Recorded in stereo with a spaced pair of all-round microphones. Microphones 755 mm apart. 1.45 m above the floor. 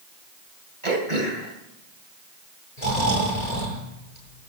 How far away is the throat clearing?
About 2.5 m.